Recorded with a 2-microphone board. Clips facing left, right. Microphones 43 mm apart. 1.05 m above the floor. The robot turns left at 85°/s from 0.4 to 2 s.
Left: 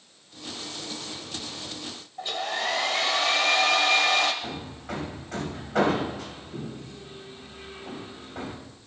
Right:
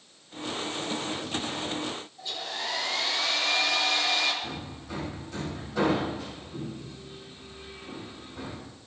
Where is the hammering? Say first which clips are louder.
Left 2 dB; 70° left (ahead or behind), 5.5 m.